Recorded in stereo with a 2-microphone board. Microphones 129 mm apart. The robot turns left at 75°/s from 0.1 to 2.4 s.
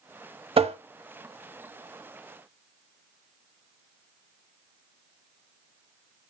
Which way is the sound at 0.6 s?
50° right (ahead or behind).